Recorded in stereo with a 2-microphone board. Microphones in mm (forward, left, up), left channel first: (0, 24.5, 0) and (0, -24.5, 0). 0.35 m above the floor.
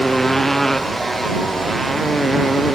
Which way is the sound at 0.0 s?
5° left (ahead or behind).